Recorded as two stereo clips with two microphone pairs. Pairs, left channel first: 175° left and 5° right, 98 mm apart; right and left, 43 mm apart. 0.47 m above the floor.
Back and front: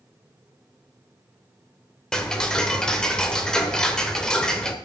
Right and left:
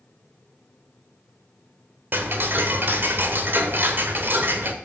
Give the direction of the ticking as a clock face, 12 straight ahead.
9 o'clock.